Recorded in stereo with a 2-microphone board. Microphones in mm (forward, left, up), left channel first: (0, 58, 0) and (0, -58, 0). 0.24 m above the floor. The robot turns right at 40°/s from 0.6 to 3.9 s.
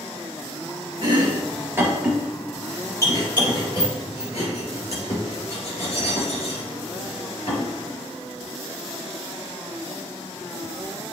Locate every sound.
1.0 s chopping: 50° right (ahead or behind), 3.5 m; by 7.7 s 60° left (ahead or behind), 3.5 m